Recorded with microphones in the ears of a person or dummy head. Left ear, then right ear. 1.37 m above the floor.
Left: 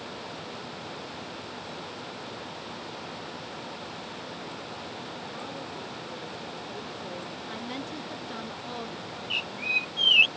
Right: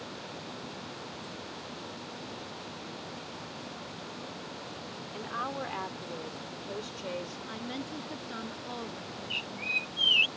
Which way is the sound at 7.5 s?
10° left (ahead or behind).